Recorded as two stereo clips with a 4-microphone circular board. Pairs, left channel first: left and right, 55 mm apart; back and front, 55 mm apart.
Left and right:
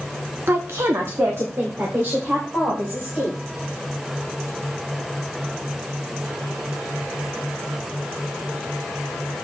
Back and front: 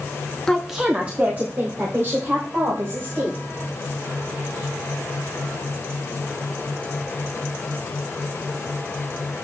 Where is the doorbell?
No doorbell in this recording.